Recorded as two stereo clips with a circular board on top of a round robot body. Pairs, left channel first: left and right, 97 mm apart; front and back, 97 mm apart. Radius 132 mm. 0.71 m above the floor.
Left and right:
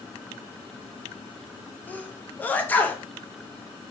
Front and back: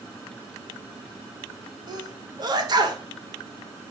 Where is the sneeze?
155° left, 1.0 m.